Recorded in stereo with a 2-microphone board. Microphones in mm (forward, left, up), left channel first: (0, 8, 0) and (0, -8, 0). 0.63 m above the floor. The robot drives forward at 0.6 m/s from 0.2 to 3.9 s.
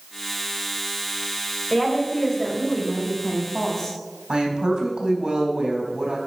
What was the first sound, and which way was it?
A woman speaking, 10° left (ahead or behind).